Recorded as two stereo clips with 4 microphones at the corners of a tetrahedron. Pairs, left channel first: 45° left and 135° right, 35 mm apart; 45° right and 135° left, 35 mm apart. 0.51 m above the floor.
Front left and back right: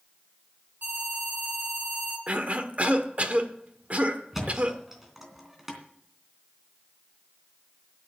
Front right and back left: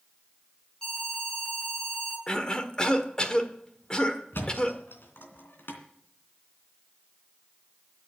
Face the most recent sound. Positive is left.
turn(degrees=-55)